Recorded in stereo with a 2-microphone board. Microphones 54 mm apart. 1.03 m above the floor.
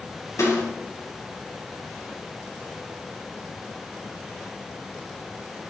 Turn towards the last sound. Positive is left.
turn(degrees=60)  # may be behind; listen again after turning